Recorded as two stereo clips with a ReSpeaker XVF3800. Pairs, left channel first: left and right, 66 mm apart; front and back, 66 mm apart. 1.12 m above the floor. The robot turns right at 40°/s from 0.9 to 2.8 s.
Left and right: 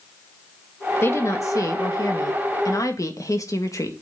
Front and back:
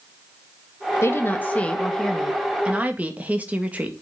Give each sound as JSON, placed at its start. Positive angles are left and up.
{"t": 1.0, "sound": "a woman speaking", "azimuth_deg": 45, "distance_m": 1.7}